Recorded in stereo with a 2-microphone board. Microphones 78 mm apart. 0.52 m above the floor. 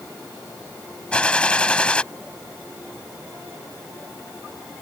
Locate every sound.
1.1 s a gunshot: 15° left (ahead or behind)